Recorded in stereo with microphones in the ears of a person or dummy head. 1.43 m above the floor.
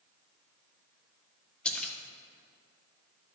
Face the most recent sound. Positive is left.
turn(degrees=5)  # may be behind; listen again after turning